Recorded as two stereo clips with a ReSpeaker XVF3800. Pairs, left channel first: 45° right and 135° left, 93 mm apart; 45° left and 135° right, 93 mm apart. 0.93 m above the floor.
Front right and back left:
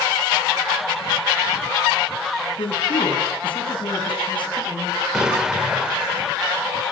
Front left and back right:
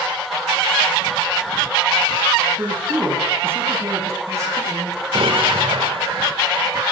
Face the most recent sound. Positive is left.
turn(degrees=-145)